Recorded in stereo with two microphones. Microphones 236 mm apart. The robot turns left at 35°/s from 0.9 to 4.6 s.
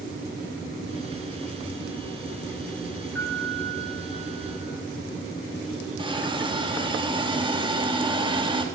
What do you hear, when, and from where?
3.1 s a piano: 115° right, 8 m; by 4.7 s 165° right, 8 m
6.0 s a hiss: 20° right (ahead or behind), 3 m